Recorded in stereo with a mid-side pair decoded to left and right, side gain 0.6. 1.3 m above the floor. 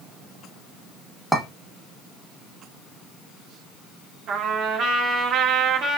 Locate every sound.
1.3 s a clink: 5° right, 1.3 m
4.3 s a trumpet: 65° right, 1.2 m